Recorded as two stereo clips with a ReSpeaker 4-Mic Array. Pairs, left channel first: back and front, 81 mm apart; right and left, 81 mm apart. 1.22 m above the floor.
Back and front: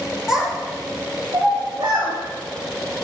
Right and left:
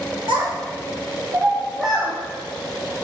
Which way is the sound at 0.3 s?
85° left.